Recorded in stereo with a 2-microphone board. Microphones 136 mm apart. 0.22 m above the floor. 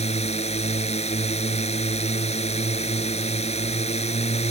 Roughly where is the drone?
Left.